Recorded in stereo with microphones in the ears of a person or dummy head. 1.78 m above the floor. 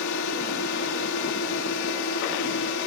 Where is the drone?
75° left (ahead or behind).